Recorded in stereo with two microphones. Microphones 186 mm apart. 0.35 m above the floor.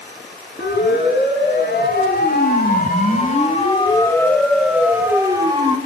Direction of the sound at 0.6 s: 75° left (ahead or behind).